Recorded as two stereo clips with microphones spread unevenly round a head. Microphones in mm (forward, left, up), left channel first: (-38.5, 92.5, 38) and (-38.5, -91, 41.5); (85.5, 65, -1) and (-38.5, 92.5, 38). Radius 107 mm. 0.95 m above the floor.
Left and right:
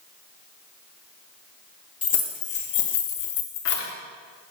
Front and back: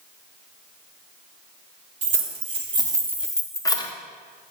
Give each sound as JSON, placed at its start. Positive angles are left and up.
{"t": 2.0, "sound": "keys jangling", "azimuth_deg": 140, "distance_m": 1.4}